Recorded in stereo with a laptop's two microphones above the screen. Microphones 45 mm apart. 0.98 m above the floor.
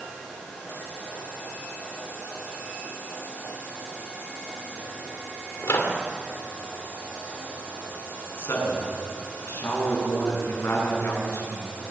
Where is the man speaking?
70° left (ahead or behind), 8.5 m.